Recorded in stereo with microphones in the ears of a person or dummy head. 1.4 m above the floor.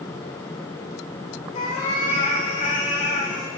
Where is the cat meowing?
40° left (ahead or behind), 3 m; by 3.5 s 60° left (ahead or behind), 3 m.